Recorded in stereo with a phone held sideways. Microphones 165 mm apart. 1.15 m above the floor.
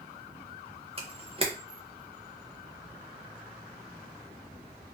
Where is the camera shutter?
35° right (ahead or behind), 0.6 m.